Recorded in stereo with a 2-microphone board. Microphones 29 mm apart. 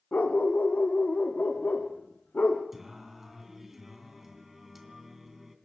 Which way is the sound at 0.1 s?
60° left (ahead or behind).